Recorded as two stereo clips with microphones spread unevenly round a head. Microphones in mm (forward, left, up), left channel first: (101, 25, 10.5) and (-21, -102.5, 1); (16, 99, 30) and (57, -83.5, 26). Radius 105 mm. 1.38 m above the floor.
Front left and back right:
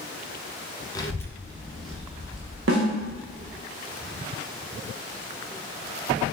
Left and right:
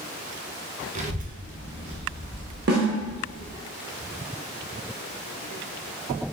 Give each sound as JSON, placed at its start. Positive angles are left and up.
{"t": 0.9, "sound": "a child speaking", "azimuth_deg": -25, "distance_m": 0.8}
{"t": 2.7, "sound": "a snare drum", "azimuth_deg": -125, "distance_m": 0.9}